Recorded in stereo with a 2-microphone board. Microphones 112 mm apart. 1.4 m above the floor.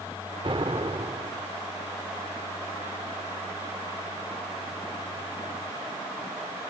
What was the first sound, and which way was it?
An explosion, 50° right (ahead or behind).